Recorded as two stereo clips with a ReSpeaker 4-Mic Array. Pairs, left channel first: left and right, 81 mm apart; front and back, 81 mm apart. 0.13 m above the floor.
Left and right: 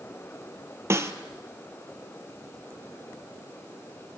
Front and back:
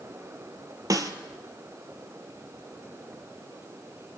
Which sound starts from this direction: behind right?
A snare drum, at 0.9 s.